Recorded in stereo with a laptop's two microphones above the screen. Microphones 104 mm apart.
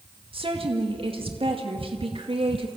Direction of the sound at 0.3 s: 60° right (ahead or behind).